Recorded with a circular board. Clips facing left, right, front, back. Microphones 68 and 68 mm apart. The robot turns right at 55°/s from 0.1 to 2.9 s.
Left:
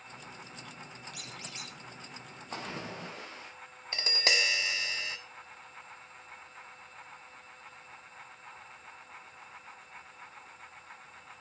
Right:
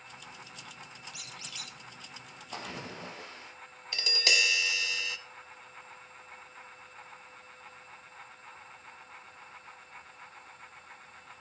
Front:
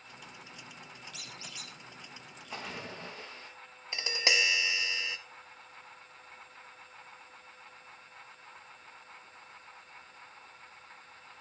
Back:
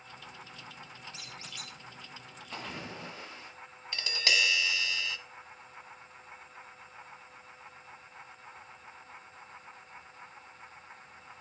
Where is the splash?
80° left, 7.5 m; by 3.5 s 100° left, 7.5 m.